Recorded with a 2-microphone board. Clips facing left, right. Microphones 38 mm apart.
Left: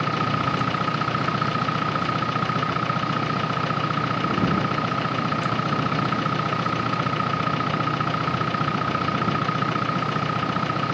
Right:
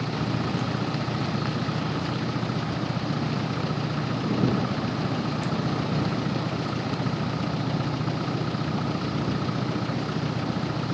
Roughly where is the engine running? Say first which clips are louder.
Left 5 dB; left.